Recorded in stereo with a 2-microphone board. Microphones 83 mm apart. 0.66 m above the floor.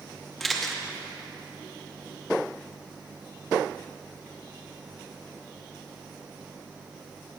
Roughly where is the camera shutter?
Centre.